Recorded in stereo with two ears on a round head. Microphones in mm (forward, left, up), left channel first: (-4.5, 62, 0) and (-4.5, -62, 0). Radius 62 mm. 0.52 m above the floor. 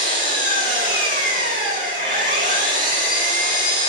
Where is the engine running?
65° right (ahead or behind), 4 m.